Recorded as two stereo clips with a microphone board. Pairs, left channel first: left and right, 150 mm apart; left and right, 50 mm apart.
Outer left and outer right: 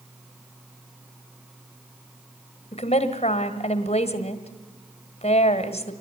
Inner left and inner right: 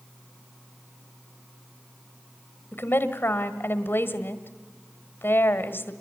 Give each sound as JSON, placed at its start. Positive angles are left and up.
{"t": 2.7, "sound": "a woman speaking", "side_deg": 40, "distance_m": 1.6}